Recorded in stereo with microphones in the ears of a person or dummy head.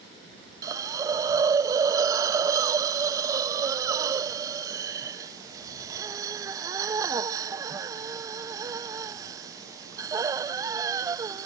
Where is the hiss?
20° right (ahead or behind).